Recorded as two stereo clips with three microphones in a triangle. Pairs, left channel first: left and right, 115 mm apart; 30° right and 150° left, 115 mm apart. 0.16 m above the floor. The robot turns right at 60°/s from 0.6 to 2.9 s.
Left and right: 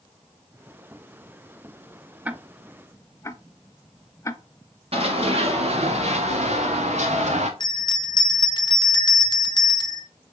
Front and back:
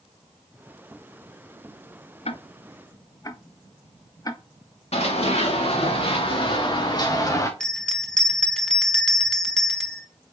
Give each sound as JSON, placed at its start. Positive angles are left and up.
{"t": 2.2, "sound": "ticking", "azimuth_deg": -15, "distance_m": 0.5}
{"t": 4.9, "sound": "running footsteps", "azimuth_deg": -60, "distance_m": 2.5}
{"t": 7.6, "sound": "a bell", "azimuth_deg": 55, "distance_m": 1.1}